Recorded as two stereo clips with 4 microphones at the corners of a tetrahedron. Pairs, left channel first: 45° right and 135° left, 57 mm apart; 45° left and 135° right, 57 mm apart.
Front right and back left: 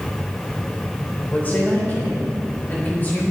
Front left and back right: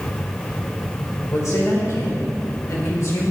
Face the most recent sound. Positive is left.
turn(degrees=15)